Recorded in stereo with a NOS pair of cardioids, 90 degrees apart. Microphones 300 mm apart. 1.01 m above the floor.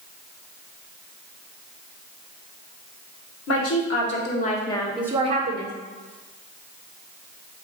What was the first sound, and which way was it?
A woman speaking, 55° left.